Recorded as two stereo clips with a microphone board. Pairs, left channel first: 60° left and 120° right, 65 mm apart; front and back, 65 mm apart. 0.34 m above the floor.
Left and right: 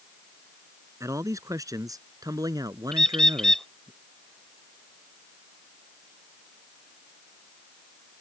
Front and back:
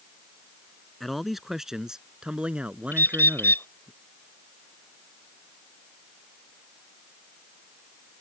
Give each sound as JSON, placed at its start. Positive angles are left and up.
{"t": 1.0, "sound": "a man speaking", "azimuth_deg": -90}
{"t": 2.9, "sound": "a bird", "azimuth_deg": -15}